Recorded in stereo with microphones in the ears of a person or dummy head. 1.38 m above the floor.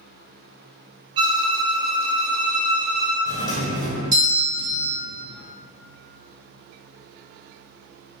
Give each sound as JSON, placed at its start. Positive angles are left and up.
{"t": 1.2, "sound": "a violin", "side_deg": -25, "distance_m": 0.6}
{"t": 3.2, "sound": "a doorbell", "side_deg": -15, "distance_m": 1.1}